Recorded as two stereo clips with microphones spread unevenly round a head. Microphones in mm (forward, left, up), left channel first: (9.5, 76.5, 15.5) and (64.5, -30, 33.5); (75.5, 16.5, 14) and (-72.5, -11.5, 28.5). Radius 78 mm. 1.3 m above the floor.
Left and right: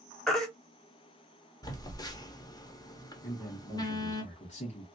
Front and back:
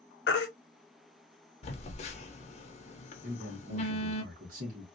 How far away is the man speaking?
About 1.5 m.